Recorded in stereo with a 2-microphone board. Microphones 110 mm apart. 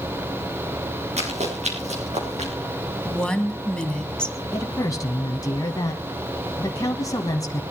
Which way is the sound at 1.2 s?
80° right.